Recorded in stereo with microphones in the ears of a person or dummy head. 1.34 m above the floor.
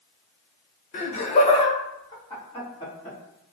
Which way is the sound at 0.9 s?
35° left (ahead or behind).